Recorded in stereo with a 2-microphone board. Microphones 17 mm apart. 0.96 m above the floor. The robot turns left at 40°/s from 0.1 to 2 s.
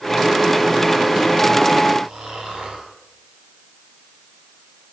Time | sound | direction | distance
2.0 | snoring | 80° right | 5.5 m